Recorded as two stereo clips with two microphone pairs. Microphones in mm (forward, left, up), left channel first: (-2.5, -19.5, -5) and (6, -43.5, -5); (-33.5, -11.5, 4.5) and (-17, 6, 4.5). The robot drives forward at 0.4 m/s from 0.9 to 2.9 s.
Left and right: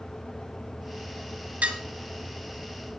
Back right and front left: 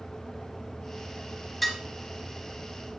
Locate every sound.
1.6 s dishes clattering: 55° right, 2.5 m